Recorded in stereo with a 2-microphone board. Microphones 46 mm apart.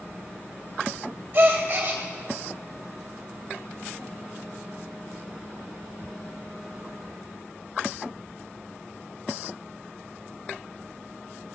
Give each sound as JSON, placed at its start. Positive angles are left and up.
{"t": 1.3, "sound": "a gasp", "side_deg": -35, "distance_m": 2.0}